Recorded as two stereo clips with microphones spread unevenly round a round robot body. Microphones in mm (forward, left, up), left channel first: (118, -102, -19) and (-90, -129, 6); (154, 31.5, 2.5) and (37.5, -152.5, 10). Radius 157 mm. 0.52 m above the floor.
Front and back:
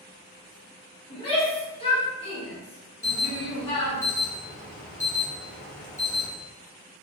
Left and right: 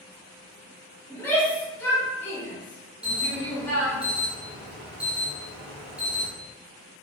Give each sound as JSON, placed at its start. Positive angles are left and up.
{"t": 1.1, "sound": "a shout", "azimuth_deg": -15, "distance_m": 1.3}
{"t": 3.0, "sound": "an alarm", "azimuth_deg": -40, "distance_m": 1.2}